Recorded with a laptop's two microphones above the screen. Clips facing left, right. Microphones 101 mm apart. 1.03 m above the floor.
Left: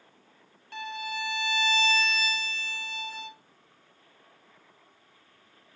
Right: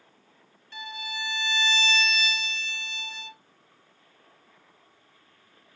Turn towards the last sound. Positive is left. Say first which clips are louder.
# left 3 dB
turn(degrees=55)  # may be behind; listen again after turning